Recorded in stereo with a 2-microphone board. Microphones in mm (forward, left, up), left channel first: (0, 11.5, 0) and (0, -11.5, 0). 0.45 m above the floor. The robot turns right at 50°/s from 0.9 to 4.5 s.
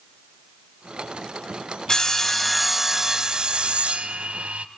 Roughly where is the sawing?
Behind left.